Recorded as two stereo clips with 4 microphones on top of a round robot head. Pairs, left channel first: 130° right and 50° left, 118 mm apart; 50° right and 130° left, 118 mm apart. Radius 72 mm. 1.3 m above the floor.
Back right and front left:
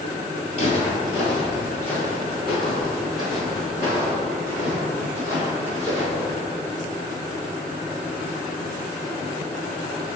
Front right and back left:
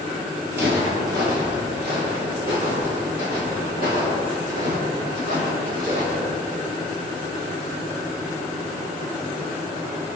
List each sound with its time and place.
0.5 s footsteps: 165° right, 1.8 m; by 6.3 s 120° left, 4 m